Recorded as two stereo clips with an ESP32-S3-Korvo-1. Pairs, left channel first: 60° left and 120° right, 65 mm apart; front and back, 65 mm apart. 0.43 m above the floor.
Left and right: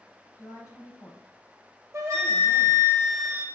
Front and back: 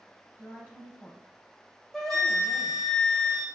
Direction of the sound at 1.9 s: 85° right.